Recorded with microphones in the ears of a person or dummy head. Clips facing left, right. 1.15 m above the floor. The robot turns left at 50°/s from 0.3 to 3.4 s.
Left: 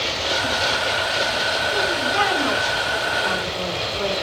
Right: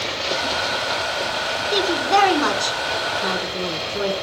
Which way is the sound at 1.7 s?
60° right.